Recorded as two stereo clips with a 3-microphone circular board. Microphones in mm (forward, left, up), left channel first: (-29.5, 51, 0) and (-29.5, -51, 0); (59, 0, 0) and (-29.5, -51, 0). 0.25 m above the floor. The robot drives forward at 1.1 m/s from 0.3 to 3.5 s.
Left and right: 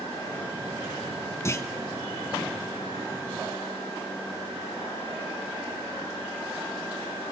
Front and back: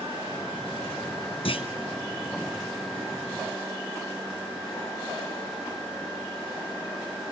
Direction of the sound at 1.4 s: 30° left.